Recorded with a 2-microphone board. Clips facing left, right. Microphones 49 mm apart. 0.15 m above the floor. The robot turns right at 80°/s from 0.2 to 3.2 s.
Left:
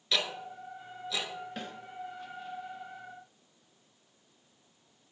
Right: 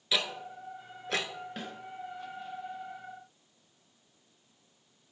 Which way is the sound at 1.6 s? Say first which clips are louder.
Right 1 dB; 5° right (ahead or behind).